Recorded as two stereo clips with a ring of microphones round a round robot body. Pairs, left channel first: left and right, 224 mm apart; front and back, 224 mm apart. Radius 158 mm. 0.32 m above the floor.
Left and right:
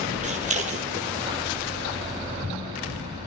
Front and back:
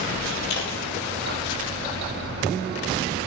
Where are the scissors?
30° right, 3 m.